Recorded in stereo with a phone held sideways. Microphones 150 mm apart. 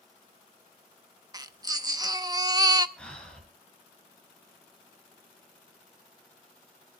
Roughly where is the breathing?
Centre.